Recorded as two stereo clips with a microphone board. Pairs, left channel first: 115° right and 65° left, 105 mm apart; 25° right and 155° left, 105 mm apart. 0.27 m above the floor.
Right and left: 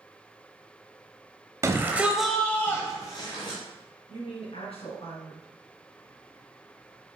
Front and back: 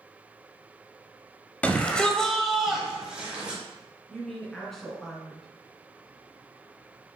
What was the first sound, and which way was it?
A shout, 40° left.